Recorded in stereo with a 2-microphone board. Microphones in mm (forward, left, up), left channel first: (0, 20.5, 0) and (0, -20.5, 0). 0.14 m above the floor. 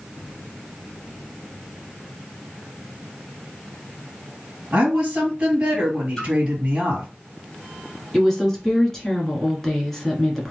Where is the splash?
25° left (ahead or behind), 2.5 m.